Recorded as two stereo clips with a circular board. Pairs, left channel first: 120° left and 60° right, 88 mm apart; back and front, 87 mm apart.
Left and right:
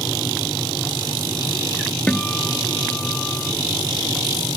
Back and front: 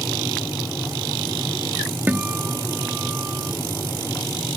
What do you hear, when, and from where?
2.1 s a guitar: 50° left